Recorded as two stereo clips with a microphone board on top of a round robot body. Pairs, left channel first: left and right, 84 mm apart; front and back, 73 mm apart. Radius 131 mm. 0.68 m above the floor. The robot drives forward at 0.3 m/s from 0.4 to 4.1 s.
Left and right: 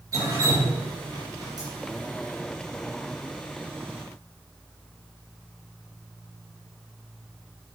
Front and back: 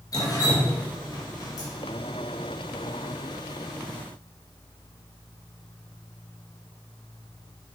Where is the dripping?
35° right, 2.5 m; by 1.7 s 45° right, 2 m.